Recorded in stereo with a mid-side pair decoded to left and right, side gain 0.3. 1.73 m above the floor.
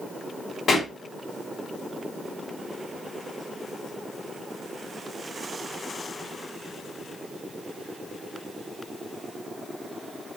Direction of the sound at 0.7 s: 70° left.